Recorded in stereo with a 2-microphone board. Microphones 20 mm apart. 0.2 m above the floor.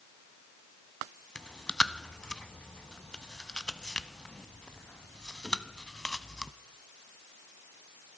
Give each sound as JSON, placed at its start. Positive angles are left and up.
{"t": 1.4, "sound": "chewing", "side_deg": 40, "distance_m": 0.6}